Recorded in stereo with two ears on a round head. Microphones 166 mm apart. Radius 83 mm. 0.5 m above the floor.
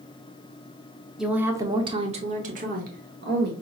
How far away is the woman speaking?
About 0.9 m.